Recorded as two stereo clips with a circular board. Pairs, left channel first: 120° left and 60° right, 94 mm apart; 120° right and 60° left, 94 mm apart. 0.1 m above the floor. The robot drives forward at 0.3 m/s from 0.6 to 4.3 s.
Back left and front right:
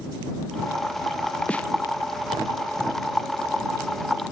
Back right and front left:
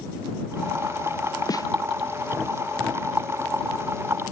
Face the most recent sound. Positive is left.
turn(degrees=-165)